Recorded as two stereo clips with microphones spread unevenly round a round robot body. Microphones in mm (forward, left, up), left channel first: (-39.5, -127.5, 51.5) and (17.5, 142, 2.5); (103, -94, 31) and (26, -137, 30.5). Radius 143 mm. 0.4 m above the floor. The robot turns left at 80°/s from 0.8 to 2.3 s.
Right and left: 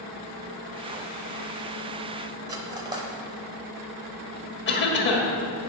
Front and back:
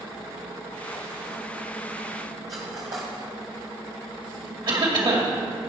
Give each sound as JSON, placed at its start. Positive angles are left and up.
{"t": 2.5, "sound": "cutlery clinking", "azimuth_deg": 150, "distance_m": 1.1}
{"t": 4.7, "sound": "a cough", "azimuth_deg": -155, "distance_m": 2.0}